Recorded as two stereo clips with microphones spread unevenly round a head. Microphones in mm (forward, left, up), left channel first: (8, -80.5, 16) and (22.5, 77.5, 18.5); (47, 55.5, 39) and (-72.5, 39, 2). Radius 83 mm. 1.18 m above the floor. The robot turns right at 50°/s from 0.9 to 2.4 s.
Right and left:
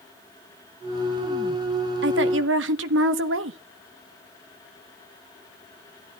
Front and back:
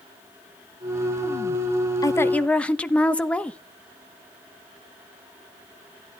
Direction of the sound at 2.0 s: 70° left.